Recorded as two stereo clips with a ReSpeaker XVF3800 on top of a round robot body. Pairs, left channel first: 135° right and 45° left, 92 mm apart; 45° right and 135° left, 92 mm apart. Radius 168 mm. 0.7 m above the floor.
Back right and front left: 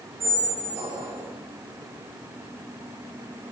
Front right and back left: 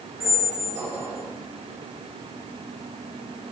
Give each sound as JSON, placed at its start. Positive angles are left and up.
{"t": 0.2, "sound": "a squeak", "azimuth_deg": 70, "distance_m": 5.0}